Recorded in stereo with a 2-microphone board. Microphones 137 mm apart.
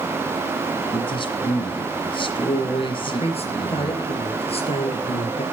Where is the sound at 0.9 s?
40° left (ahead or behind), 2 m.